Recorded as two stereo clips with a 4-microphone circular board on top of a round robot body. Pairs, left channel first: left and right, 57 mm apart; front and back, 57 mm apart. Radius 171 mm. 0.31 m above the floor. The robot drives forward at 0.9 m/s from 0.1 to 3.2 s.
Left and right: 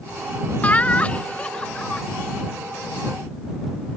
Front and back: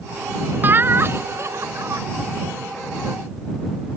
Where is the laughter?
145° left; by 2.0 s 160° left.